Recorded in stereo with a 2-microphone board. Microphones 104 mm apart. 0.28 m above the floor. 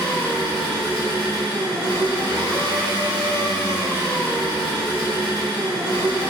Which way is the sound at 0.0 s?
45° right (ahead or behind).